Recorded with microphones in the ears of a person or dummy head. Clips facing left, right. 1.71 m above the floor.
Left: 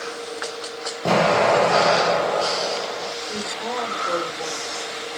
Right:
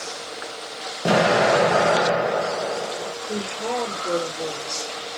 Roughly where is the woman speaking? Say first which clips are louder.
Right 5 dB; right.